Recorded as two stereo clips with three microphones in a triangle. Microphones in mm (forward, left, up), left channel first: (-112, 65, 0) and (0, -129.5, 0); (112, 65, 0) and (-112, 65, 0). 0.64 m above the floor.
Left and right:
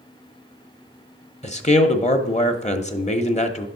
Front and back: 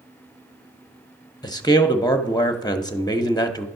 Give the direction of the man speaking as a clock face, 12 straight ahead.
10 o'clock.